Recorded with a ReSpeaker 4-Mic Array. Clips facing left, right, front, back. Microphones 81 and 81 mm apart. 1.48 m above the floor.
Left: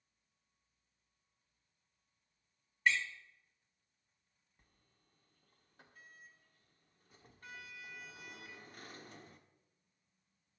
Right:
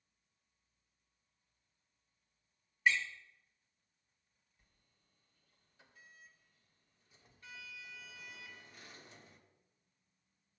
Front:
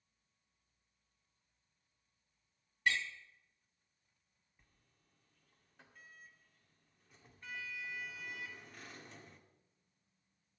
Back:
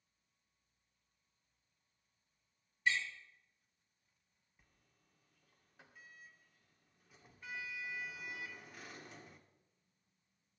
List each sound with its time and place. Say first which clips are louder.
2.9 s a door slam: right 1 dB, front 1 dB; 5° right, 1.5 m
4.6 s a sliding door: left 4 dB, back 1 dB; 95° left, 1.5 m